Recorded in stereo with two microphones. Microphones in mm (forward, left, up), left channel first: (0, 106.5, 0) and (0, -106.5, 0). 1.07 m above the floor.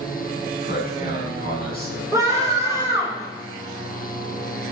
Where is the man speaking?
45° left (ahead or behind), 8 m; by 2.0 s 50° left (ahead or behind), 8 m.